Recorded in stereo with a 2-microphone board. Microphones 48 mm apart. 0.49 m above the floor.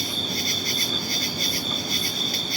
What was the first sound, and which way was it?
An insect, 5° right (ahead or behind).